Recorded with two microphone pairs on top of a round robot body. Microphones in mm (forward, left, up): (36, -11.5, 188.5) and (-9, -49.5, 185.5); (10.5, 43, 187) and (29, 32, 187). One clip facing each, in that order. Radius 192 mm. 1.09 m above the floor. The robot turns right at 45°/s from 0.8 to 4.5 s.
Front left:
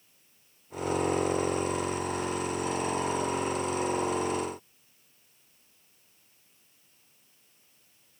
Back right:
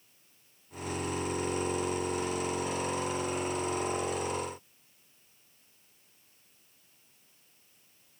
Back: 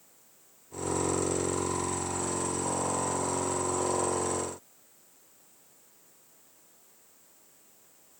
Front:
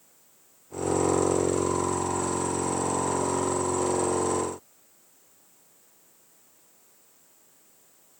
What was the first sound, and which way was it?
Only background noise.